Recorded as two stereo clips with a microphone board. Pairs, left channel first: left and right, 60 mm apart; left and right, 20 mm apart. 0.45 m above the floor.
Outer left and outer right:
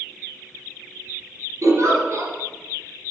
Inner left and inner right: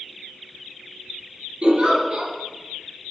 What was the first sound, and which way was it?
A giggle, 50° right (ahead or behind).